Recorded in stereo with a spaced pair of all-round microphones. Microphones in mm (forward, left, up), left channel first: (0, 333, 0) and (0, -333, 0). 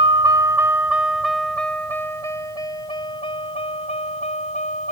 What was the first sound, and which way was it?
A vehicle, 65° right (ahead or behind).